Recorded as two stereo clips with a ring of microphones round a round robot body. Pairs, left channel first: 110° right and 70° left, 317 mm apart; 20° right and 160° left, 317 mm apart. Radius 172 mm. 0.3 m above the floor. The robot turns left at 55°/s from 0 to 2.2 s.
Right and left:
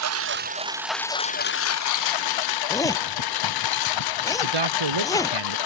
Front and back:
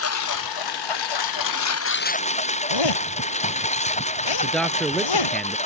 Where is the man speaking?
65° left.